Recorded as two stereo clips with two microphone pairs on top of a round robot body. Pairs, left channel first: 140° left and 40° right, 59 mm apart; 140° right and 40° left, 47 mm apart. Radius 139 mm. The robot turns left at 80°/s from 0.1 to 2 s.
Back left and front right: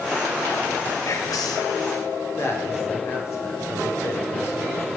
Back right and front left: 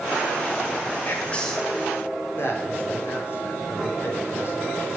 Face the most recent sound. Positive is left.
turn(degrees=-175)